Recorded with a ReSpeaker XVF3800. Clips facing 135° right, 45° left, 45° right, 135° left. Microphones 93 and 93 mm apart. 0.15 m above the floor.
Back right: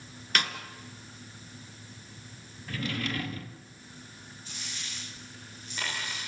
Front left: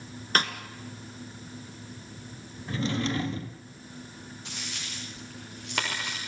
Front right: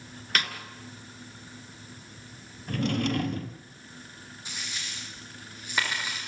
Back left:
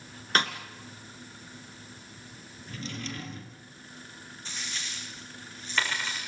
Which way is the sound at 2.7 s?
20° right.